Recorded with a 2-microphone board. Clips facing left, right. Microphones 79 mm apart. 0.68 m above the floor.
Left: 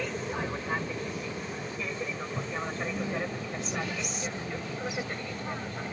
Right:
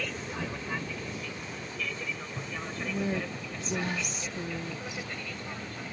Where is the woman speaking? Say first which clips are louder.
Even; 45° right (ahead or behind).